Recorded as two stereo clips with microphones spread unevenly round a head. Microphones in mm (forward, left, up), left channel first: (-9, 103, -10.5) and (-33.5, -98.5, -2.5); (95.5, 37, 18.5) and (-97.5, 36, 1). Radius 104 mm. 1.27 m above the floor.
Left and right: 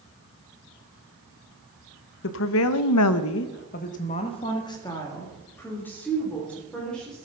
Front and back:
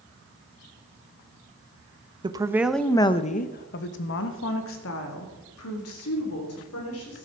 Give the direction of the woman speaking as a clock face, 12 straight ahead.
8 o'clock.